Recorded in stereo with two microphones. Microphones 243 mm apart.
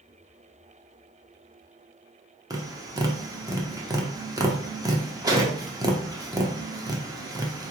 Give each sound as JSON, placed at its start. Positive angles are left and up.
{"t": 2.5, "sound": "tapping", "side_deg": -15, "distance_m": 0.6}